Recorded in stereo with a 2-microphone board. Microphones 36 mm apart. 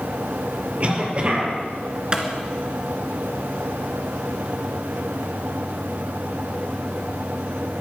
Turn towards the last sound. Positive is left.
turn(degrees=-25)  # may be behind; listen again after turning